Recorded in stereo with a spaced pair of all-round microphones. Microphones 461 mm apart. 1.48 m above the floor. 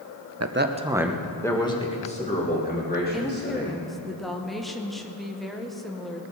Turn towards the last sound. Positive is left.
turn(degrees=0)  # may be behind; listen again after turning